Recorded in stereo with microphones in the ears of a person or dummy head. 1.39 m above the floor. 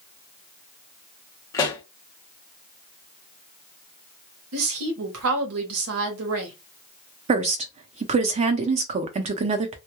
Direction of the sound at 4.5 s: 80° right.